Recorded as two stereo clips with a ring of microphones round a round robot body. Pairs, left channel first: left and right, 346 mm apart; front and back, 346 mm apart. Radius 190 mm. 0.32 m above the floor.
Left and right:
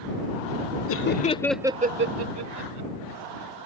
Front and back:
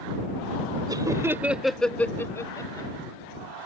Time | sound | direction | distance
0.9 | laughter | 105° left | ?